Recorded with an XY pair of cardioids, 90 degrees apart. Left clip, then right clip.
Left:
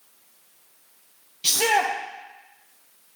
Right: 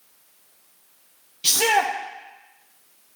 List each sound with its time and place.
1.4 s a shout: 10° right, 0.7 m